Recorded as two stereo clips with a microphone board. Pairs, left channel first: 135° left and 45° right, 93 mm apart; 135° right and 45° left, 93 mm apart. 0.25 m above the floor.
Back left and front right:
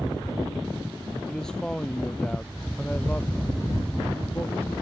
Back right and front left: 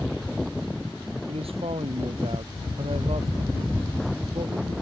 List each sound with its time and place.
1.3 s a man speaking: 50° left; by 4.8 s 65° left